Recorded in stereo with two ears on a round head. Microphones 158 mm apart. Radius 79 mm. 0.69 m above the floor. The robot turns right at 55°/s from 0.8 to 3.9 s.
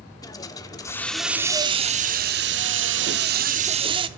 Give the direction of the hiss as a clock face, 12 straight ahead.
7 o'clock.